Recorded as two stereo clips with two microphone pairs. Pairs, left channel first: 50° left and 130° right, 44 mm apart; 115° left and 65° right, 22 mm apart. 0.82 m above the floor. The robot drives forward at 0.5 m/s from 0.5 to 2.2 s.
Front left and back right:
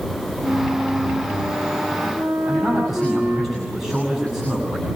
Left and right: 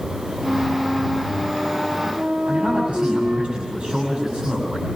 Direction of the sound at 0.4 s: 75° right.